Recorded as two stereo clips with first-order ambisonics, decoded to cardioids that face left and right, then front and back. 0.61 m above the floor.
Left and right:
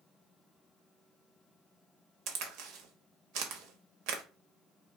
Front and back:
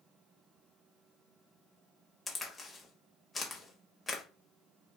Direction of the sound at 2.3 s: 80° right.